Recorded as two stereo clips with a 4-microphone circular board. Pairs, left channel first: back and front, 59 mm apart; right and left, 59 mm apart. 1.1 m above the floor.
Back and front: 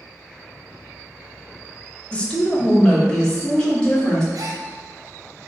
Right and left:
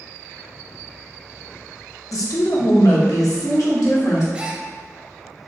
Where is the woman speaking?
110° right, 0.7 m; by 4.2 s 100° right, 1.7 m.